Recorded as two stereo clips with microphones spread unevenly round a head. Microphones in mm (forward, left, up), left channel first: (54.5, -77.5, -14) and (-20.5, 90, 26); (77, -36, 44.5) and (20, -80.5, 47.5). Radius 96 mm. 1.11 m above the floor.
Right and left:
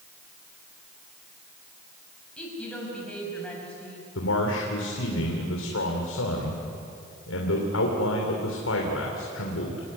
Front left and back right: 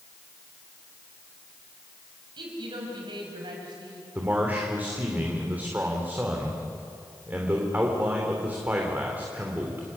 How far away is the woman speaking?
About 6 m.